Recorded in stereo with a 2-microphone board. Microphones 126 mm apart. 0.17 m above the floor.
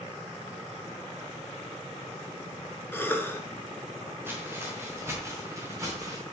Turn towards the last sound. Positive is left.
turn(degrees=-25)  # may be behind; listen again after turning